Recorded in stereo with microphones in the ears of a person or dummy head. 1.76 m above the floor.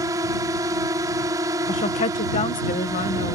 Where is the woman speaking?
35° left (ahead or behind).